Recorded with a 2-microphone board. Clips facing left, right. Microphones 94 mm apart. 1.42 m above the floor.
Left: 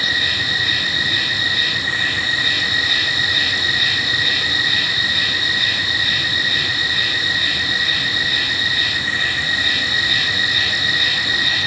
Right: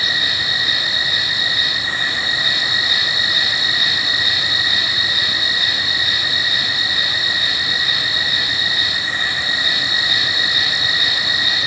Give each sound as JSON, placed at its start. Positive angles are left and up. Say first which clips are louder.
{"t": 0.0, "sound": "an insect", "louder": "left 1 dB", "side_deg": -20}